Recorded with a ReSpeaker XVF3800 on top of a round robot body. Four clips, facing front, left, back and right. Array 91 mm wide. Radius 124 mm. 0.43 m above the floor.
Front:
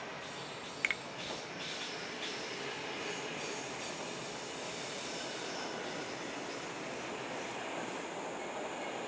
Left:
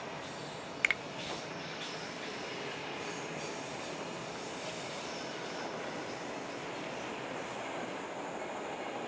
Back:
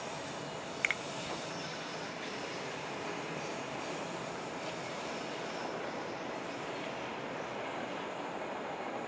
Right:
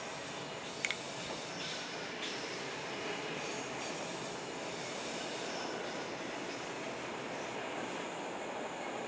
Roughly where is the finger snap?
Left.